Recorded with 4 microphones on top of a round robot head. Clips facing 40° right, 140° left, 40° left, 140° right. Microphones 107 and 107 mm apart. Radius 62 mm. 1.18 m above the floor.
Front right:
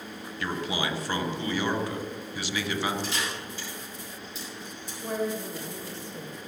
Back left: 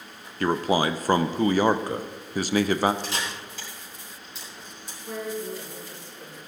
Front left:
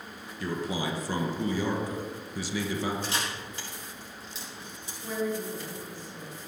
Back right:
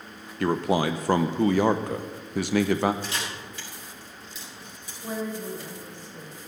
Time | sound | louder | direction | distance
0.4 | a man speaking | back left 8 dB, back right 8 dB | 170° right | 0.7 m
3.0 | a camera shutter | even, front left 1 dB | 100° left | 6 m
5.0 | a woman speaking | front right 2 dB, front left 1 dB | 75° right | 5 m